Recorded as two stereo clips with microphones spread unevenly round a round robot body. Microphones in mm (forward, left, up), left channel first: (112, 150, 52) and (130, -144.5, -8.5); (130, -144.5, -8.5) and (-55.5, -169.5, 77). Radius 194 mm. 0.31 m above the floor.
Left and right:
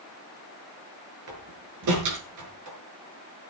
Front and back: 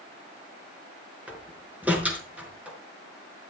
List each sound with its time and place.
1.3 s a door slam: 85° right, 4.5 m